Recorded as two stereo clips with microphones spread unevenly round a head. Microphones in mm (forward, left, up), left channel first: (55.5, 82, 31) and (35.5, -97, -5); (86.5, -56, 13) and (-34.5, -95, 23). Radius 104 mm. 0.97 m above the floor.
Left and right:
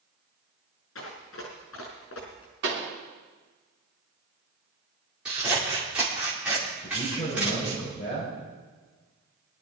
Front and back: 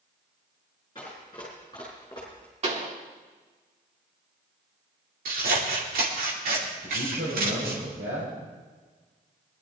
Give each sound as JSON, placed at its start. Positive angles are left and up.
{"t": 0.9, "sound": "running footsteps", "azimuth_deg": 95, "distance_m": 4.5}
{"t": 2.6, "sound": "a pop", "azimuth_deg": -125, "distance_m": 3.0}
{"t": 5.2, "sound": "scissors", "azimuth_deg": 180, "distance_m": 2.5}
{"t": 6.8, "sound": "a man speaking", "azimuth_deg": 145, "distance_m": 5.0}